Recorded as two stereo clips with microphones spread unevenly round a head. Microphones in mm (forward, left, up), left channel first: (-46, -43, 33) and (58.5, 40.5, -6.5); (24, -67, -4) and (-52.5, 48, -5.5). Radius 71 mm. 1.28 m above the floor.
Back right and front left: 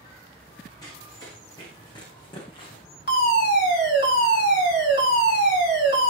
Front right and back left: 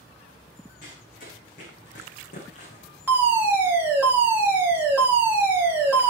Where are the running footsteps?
80° right, 6 m; by 2.9 s 90° right, 6 m.